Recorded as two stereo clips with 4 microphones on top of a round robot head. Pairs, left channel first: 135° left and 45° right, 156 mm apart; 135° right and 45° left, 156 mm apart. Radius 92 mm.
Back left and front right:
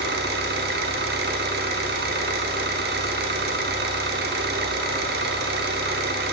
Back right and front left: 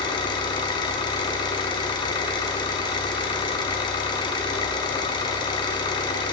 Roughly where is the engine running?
Right.